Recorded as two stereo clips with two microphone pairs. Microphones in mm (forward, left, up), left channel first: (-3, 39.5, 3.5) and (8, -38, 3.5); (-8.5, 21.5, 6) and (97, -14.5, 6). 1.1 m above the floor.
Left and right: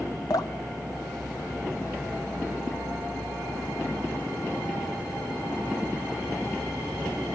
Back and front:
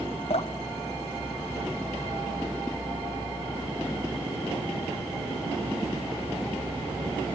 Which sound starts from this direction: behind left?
Dripping, at 0.3 s.